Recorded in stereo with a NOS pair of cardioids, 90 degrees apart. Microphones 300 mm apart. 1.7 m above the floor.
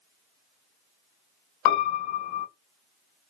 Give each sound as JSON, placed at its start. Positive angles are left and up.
{"t": 1.6, "sound": "a piano", "azimuth_deg": 65, "distance_m": 0.7}